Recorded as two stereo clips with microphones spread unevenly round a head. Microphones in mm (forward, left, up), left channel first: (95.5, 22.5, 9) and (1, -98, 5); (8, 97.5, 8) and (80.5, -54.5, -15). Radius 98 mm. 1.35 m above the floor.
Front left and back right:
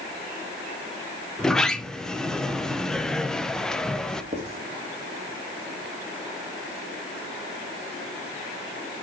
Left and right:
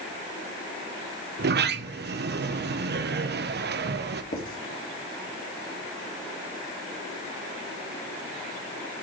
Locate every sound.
1.4 s a sliding door: 35° right, 0.7 m
4.3 s writing: 170° left, 1.9 m